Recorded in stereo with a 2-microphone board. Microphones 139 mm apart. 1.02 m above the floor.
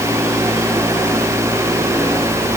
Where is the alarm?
No alarm in this recording.